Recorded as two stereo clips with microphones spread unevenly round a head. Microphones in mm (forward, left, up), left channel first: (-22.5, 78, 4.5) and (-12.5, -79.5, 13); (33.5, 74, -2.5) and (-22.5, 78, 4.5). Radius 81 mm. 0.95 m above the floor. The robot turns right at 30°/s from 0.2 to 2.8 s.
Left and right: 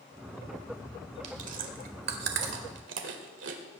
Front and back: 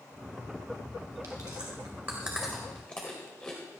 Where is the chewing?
135° right, 1.9 m; by 3.6 s 85° right, 1.9 m.